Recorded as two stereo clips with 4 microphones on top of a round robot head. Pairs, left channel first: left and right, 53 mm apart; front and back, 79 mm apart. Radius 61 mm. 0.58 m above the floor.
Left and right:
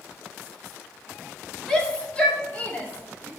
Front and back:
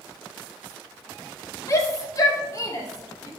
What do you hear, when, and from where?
1.7 s a shout: 15° left, 1.4 m; by 3.3 s 30° left, 2 m